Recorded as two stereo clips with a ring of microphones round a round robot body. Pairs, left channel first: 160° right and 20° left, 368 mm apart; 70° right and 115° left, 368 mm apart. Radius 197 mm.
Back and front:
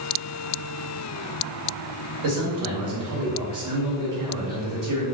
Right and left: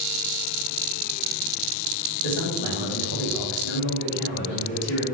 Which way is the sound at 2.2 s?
10° right.